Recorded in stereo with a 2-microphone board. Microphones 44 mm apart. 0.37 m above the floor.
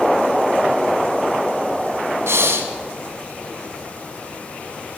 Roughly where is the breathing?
Right.